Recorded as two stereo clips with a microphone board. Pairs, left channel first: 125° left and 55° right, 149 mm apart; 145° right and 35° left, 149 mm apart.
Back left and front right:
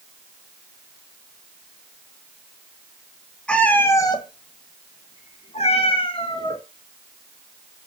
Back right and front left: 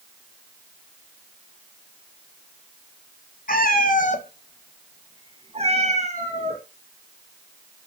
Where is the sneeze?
I don't hear a sneeze.